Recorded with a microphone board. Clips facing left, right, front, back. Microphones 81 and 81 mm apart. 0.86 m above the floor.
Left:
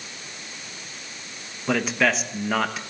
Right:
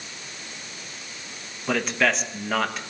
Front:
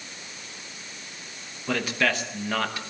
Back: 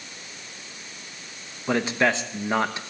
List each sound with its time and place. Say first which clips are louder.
1.7 s a man speaking: left 1 dB, back 3 dB; 175° left, 1.0 m